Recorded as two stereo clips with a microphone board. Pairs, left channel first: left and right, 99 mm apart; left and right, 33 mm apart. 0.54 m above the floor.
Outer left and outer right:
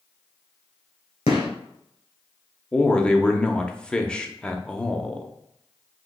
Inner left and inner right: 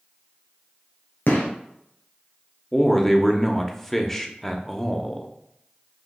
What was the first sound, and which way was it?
A gunshot, 75° left (ahead or behind).